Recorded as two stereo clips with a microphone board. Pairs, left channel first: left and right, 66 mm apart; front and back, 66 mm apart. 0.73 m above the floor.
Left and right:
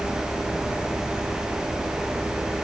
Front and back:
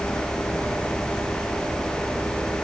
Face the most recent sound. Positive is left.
No sound to turn to.